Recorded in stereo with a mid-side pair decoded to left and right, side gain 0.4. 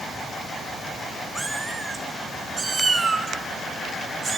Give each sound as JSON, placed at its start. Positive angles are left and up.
{"t": 1.4, "sound": "a cat meowing", "azimuth_deg": -20, "distance_m": 4.0}